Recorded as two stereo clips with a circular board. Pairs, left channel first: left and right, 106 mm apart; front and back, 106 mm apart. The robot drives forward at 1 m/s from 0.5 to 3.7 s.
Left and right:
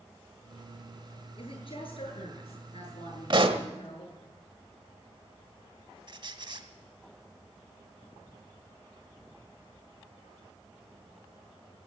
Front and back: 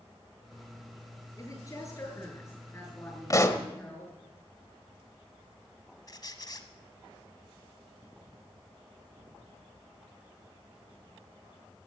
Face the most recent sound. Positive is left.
turn(degrees=-50)